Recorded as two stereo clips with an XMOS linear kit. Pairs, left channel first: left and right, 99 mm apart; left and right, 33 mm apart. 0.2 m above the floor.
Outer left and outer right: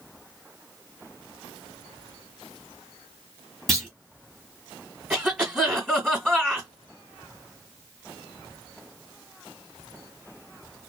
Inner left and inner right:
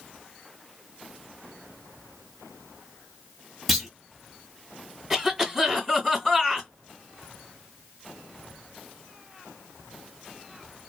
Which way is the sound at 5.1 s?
5° right (ahead or behind).